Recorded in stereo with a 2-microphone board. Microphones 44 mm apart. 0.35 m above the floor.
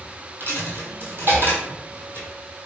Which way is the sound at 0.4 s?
60° right (ahead or behind).